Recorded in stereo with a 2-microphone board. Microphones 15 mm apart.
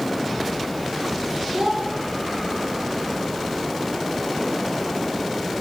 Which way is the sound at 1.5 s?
85° right.